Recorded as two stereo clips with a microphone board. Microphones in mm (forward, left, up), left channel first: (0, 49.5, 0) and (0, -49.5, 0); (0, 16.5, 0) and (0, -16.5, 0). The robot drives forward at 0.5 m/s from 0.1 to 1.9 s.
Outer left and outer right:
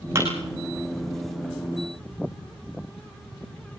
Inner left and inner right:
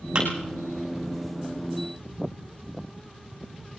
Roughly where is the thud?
Right.